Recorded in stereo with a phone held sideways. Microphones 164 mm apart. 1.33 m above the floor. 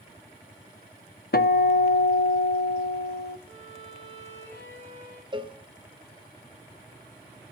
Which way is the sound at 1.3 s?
70° left (ahead or behind).